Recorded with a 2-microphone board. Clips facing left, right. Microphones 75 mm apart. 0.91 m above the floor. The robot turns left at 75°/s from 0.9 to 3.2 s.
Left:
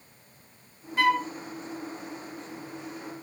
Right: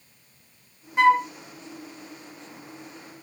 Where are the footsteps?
No footsteps in this recording.